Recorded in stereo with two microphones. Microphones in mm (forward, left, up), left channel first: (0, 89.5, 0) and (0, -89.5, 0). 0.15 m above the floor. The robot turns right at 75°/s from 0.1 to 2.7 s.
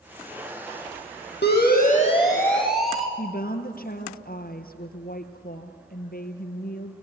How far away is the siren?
About 5 m.